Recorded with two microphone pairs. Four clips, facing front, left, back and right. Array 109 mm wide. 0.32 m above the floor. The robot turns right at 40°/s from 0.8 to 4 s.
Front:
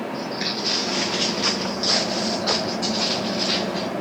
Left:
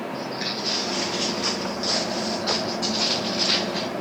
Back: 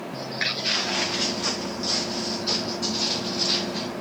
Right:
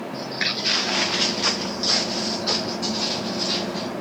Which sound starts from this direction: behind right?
Footsteps, at 0.1 s.